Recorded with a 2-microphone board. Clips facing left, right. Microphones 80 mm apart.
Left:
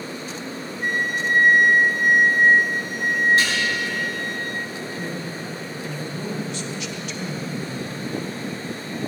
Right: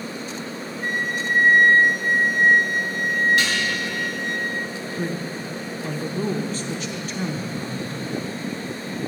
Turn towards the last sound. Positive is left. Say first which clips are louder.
# right 5 dB
turn(degrees=-40)  # may be behind; listen again after turning